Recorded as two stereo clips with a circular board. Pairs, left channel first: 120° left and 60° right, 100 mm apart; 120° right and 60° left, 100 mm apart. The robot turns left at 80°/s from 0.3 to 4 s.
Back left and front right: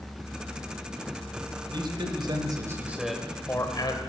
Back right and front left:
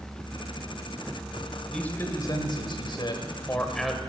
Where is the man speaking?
35° right, 2 m; by 4.0 s 140° left, 2 m.